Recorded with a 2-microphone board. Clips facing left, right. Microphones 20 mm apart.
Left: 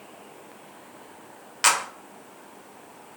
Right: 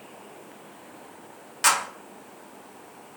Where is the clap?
20° left (ahead or behind), 0.8 m.